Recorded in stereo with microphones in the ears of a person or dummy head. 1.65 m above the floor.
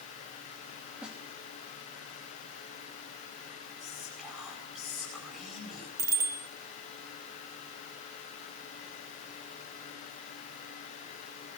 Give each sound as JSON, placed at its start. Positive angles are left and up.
{"t": 1.0, "sound": "a snare drum", "side_deg": -5, "distance_m": 3.0}
{"t": 3.8, "sound": "whispering", "side_deg": 0, "distance_m": 9.0}
{"t": 6.0, "sound": "a bicycle bell", "side_deg": -20, "distance_m": 4.5}